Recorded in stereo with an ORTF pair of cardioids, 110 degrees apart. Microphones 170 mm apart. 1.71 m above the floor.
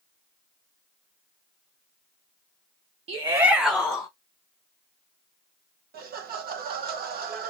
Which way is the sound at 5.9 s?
65° right.